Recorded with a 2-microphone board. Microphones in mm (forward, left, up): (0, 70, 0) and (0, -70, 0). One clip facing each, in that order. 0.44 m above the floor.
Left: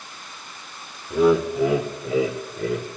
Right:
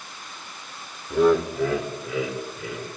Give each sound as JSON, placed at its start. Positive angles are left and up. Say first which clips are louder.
{"t": 1.1, "sound": "laughter", "louder": "left 1 dB", "side_deg": 0, "distance_m": 1.2}